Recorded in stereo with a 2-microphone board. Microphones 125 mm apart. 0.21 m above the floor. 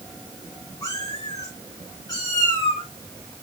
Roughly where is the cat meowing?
Left.